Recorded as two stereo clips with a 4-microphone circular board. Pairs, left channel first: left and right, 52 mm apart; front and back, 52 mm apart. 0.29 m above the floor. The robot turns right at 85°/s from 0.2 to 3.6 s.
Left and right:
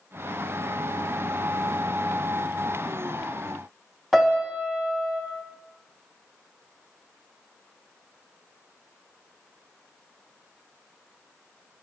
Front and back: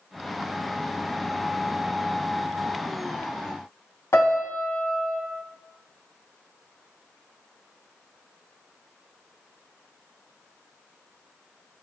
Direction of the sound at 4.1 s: 5° right.